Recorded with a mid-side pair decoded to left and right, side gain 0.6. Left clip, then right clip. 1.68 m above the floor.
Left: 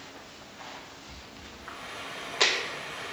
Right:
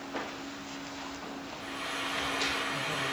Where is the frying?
30° right, 2.5 m.